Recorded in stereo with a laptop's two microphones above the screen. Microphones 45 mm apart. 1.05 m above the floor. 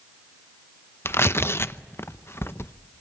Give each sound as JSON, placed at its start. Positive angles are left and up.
{"t": 1.1, "sound": "tearing paper", "side_deg": 60, "distance_m": 0.7}